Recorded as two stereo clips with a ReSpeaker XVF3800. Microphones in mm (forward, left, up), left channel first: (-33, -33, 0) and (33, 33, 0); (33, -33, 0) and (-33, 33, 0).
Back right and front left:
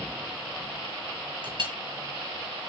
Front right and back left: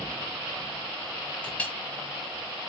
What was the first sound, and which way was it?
A clink, 30° left.